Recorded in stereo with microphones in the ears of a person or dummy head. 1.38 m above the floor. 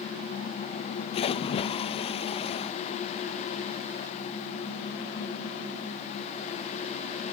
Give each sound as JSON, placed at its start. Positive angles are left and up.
{"t": 1.1, "sound": "a splash", "side_deg": 35, "distance_m": 0.8}